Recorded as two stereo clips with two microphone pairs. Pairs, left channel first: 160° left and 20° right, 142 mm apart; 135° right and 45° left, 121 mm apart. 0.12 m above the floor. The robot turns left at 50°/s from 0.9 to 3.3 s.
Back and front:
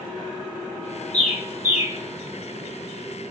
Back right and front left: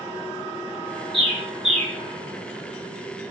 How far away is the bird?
About 0.9 m.